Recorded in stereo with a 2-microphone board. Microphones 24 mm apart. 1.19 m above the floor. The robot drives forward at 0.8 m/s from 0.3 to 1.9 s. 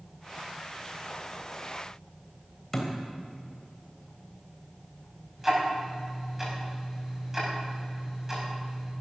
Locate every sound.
2.7 s a thud: 15° left (ahead or behind), 3 m
5.4 s ticking: 15° right (ahead or behind), 5 m